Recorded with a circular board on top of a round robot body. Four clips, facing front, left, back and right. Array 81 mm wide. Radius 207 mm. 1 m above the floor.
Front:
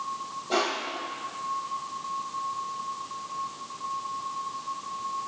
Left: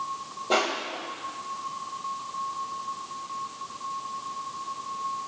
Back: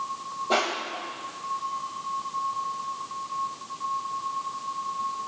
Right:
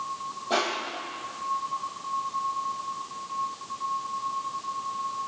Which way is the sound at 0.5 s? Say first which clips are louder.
Left 2 dB, back 1 dB; 110° left.